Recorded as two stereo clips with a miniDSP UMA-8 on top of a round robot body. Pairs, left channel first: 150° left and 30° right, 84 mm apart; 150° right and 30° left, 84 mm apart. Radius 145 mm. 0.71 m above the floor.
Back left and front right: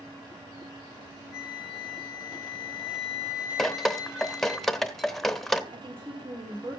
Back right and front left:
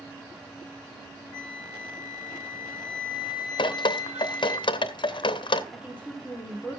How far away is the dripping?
About 0.8 m.